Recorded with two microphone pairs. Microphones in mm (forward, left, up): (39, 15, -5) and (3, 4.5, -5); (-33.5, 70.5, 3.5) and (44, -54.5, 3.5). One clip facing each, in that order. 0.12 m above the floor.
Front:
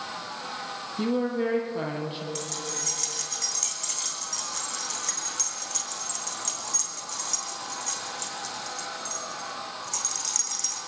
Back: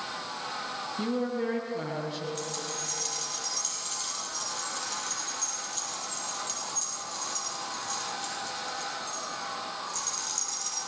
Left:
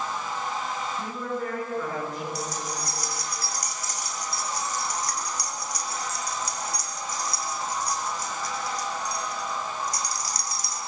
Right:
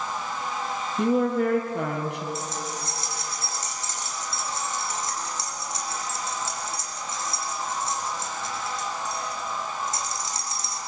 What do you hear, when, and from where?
1.0 s a woman speaking: 55° right, 3.5 m
2.4 s keys jangling: 10° left, 4 m